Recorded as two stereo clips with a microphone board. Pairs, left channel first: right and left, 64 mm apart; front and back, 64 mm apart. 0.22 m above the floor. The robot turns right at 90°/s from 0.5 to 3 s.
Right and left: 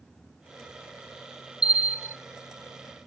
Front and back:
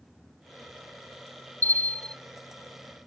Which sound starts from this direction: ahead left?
A bell, at 1.6 s.